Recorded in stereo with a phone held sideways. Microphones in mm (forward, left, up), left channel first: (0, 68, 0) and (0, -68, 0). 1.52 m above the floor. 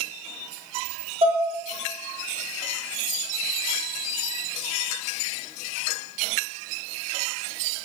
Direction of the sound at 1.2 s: 45° right (ahead or behind).